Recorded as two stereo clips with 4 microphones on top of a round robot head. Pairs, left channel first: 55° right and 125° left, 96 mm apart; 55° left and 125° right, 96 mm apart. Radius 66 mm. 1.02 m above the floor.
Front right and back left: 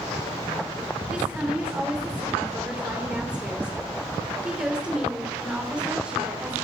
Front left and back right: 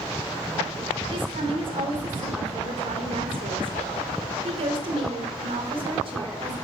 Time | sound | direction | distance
1.1 | a woman speaking | 155° right | 3.5 m